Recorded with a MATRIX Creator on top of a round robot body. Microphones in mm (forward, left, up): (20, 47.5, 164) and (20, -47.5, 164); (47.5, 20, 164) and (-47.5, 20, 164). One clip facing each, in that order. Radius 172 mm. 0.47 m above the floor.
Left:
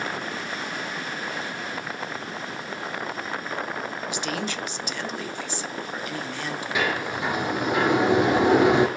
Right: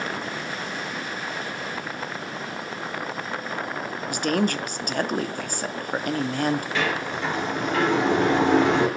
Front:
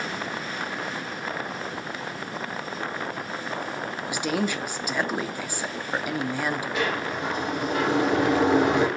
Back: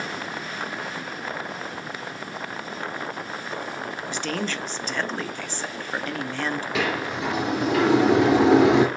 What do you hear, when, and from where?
4.1 s a woman speaking: 75° right, 1.0 m
6.8 s a sliding door: 170° left, 2.5 m